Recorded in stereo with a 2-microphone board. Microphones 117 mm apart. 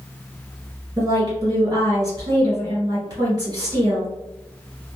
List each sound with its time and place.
1.0 s a woman speaking: 30° right (ahead or behind), 1.9 m